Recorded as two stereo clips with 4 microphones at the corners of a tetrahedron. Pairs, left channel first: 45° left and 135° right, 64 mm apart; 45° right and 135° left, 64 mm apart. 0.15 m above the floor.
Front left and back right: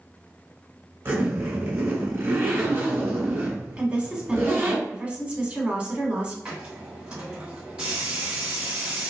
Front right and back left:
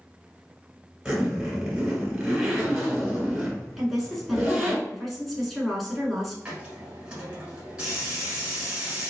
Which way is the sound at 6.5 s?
170° right.